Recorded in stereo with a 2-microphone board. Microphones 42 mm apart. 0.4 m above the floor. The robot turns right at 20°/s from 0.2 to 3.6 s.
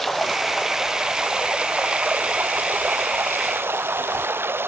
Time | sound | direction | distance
0.0 | running water | straight behind | ?